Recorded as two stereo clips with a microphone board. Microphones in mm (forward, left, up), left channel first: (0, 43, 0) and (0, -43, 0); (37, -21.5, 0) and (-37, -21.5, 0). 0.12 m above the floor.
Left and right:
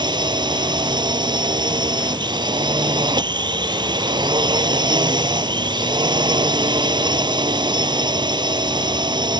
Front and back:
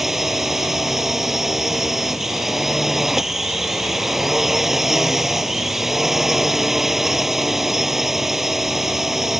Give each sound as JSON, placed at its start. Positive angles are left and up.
{"t": 0.0, "sound": "a drone", "azimuth_deg": -95}